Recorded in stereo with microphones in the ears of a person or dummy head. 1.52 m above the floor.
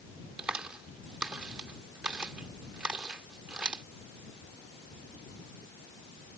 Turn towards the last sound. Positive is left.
turn(degrees=0)  # may be behind; listen again after turning